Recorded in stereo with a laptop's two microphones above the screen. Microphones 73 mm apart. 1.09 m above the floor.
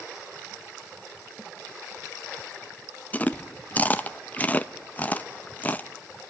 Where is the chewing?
25° left (ahead or behind), 0.5 m.